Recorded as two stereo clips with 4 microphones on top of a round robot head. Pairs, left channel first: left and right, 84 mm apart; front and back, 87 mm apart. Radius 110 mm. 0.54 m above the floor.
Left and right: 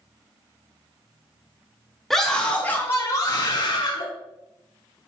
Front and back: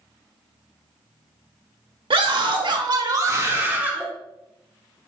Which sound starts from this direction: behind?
A scream, at 2.1 s.